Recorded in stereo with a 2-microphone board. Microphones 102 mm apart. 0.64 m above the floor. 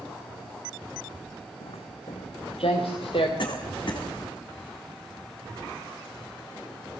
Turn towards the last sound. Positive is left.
turn(degrees=55)  # may be behind; listen again after turning